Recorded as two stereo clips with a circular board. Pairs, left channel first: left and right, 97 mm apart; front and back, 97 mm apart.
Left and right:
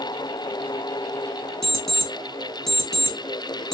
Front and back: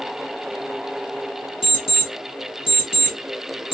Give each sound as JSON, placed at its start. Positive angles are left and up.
{"t": 1.6, "sound": "an alarm clock", "azimuth_deg": 5, "distance_m": 1.8}